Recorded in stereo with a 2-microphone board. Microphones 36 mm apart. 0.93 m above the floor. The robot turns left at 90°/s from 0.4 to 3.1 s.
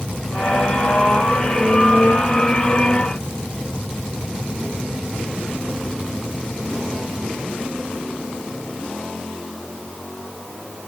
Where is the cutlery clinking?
No cutlery clinking in this recording.